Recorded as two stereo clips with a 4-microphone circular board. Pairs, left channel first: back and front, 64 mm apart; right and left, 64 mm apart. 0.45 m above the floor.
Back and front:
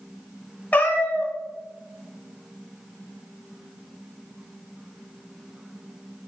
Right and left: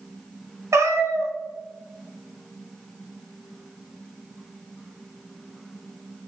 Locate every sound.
0.7 s a cat meowing: 120° left, 0.5 m